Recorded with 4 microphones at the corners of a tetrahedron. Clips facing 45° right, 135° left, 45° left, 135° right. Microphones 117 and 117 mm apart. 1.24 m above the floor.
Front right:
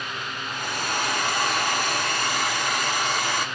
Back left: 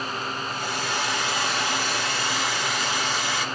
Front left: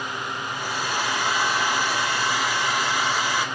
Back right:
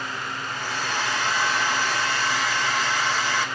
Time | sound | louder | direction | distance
0.5 | a hair dryer | front right 3 dB, front left 1 dB | 30° right | 1.1 m